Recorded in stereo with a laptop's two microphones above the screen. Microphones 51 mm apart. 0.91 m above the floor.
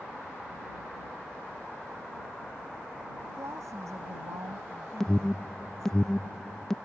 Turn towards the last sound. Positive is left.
turn(degrees=10)  # may be behind; listen again after turning